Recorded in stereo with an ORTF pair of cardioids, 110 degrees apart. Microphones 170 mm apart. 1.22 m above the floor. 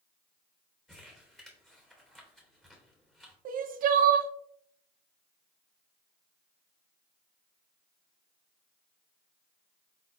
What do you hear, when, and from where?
0.9 s crumpling: straight ahead, 2.5 m
3.5 s crying: 55° right, 0.7 m